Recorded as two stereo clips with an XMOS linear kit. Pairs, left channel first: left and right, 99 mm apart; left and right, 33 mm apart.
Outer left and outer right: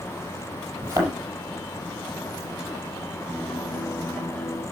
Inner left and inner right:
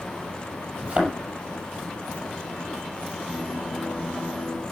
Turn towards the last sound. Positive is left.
turn(degrees=10)  # may be behind; listen again after turning